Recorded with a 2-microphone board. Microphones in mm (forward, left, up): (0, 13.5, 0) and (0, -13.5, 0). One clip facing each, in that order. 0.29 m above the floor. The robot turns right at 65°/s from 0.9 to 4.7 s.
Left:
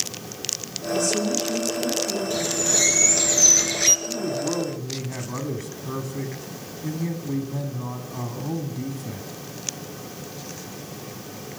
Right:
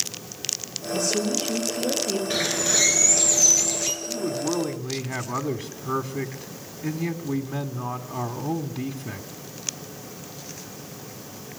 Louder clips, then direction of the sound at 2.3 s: Right 1 dB; 45° right.